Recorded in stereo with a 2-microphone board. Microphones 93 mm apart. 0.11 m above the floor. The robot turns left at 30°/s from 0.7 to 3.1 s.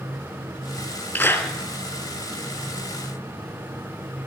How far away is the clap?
About 2.5 m.